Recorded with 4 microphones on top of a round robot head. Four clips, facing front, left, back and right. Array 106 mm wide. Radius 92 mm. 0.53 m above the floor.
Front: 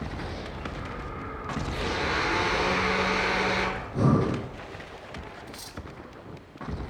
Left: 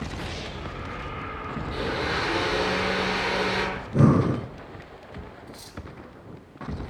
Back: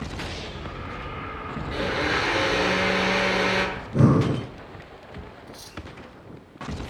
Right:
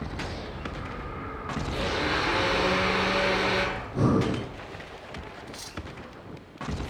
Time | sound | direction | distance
1.7 | a blender | 175° left | 7.5 m
3.8 | breathing | 130° left | 5 m
5.5 | cutlery clinking | 80° right | 1.9 m